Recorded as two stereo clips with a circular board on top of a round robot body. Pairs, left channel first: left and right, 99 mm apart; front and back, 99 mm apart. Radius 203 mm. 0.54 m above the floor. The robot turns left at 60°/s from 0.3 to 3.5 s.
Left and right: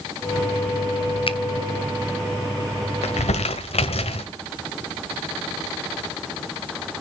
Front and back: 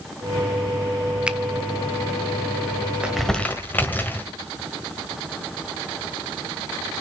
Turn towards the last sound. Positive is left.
turn(degrees=70)